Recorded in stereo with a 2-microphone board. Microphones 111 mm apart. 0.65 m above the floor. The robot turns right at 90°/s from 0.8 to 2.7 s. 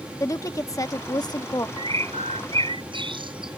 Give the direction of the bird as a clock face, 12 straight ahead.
4 o'clock.